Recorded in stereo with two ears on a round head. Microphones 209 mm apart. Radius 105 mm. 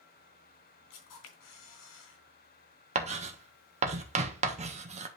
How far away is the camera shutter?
About 3 m.